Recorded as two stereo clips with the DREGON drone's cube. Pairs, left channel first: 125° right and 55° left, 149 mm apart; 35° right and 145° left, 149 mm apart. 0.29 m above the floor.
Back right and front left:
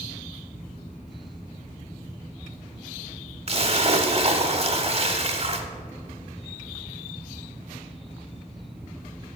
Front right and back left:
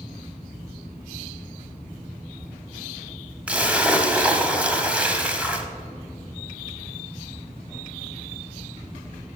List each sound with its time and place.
3.5 s a splash: 70° left, 0.7 m